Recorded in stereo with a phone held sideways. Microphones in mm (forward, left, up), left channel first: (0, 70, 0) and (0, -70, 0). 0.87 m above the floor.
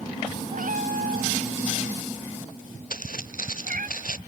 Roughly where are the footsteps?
Left.